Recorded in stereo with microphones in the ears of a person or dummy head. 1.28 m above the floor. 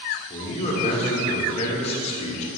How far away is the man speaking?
About 2.5 m.